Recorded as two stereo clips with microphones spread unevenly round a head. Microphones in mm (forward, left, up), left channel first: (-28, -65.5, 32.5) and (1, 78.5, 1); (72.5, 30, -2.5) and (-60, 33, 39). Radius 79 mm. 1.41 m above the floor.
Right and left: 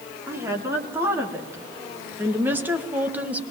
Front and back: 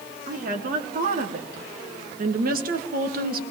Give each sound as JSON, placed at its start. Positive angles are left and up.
{"t": 0.3, "sound": "a woman speaking", "azimuth_deg": 150, "distance_m": 4.5}